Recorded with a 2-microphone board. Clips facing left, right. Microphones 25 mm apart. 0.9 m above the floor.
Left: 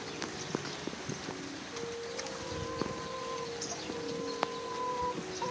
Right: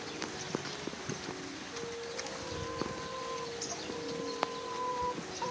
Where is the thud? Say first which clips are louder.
Even; 20° right (ahead or behind).